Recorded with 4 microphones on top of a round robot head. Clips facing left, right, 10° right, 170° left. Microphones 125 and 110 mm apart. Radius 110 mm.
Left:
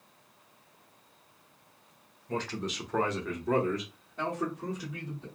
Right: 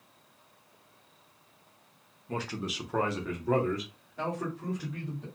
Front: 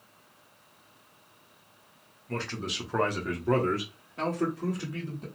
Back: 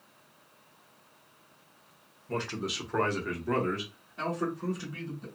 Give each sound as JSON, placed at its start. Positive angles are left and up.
{"t": 2.3, "sound": "a man speaking", "azimuth_deg": -160, "distance_m": 1.0}